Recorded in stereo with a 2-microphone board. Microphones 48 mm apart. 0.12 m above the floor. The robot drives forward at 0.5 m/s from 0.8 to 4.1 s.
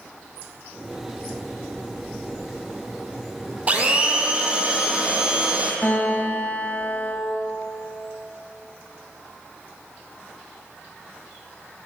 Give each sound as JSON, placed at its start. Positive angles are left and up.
{"t": 3.7, "sound": "a blender", "side_deg": -35, "distance_m": 0.6}
{"t": 5.8, "sound": "a guitar", "side_deg": 45, "distance_m": 1.3}